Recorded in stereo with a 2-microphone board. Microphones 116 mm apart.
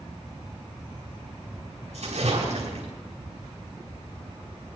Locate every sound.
1.9 s a splash: 75° right (ahead or behind), 5 m